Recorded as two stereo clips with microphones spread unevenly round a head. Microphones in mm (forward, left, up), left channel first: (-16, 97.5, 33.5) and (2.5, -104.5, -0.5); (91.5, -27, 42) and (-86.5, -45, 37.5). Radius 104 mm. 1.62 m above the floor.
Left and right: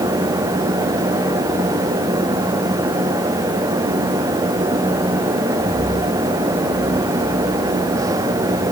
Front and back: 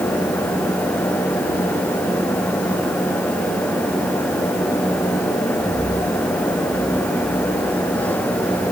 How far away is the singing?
I don't hear singing.